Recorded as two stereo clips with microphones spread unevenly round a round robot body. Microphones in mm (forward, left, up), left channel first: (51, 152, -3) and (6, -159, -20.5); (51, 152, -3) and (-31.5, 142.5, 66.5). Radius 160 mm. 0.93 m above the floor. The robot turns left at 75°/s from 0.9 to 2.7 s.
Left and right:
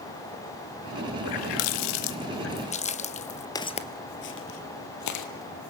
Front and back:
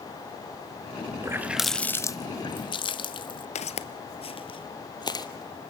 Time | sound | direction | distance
1.2 | a running tap | 120° left | 1.0 m
3.5 | footsteps | 15° left | 1.0 m